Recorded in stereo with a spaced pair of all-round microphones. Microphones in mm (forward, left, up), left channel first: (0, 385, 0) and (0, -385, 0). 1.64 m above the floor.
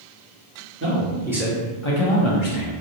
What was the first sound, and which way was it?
A man speaking, 15° right (ahead or behind).